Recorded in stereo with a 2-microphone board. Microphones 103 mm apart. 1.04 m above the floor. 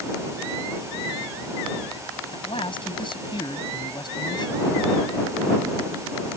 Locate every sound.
2.3 s a man speaking: 55° left (ahead or behind); by 4.6 s 45° left (ahead or behind)